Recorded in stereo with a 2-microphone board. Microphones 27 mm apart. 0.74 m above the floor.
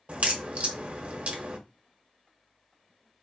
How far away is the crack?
About 0.8 m.